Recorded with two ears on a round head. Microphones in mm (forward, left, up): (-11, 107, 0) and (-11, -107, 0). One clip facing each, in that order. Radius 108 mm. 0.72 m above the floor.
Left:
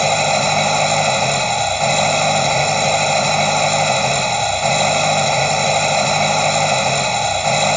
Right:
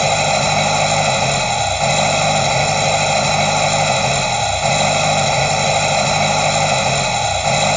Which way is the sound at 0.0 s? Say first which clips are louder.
Even; centre (ahead or behind).